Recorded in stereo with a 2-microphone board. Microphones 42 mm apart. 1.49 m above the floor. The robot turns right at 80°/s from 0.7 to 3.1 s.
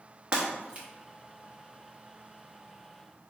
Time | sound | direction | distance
0.3 | breaking glass | 25° right (ahead or behind) | 1.0 m